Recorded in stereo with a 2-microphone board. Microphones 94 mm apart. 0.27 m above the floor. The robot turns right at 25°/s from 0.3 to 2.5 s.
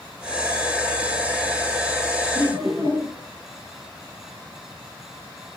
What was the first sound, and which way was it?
Laughter, 55° right (ahead or behind).